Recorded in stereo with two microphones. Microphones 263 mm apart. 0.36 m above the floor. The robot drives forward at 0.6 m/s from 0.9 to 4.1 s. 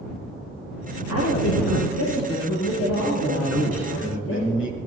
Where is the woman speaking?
75° left (ahead or behind), 7.5 m; by 4.5 s 65° left (ahead or behind), 8 m.